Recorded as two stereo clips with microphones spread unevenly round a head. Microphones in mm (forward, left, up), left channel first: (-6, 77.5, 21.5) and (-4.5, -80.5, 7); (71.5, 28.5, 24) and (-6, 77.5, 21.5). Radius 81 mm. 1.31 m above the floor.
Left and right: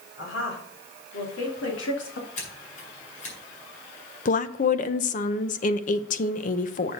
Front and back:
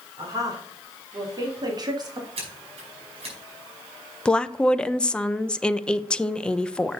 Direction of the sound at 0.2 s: 100° left.